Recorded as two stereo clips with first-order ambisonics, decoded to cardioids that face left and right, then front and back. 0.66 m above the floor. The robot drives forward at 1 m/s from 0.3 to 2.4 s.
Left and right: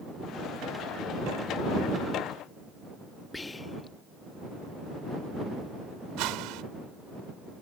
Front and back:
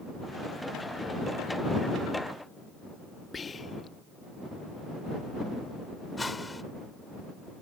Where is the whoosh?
80° right.